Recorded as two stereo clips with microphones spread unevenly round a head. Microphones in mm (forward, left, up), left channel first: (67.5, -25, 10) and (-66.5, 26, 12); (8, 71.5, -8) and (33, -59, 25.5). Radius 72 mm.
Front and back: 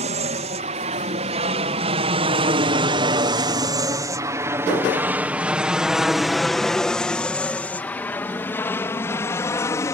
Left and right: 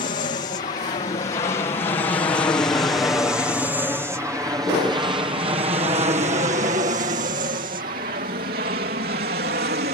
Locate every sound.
0.0 s an aircraft: 130° left; by 9.9 s 90° right